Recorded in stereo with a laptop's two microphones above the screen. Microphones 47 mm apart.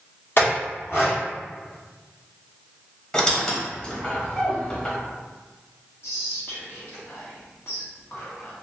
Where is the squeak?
20° left (ahead or behind), 1.0 m.